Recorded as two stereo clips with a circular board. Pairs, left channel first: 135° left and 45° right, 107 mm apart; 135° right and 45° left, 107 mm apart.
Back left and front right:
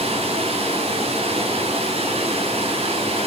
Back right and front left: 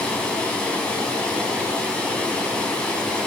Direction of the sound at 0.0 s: 55° right.